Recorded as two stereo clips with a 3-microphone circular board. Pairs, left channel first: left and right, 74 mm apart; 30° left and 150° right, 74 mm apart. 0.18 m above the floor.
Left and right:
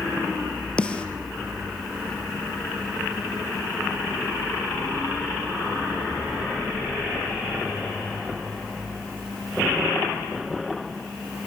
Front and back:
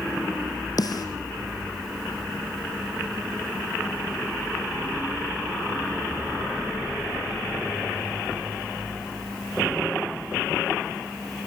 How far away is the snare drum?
About 2.5 m.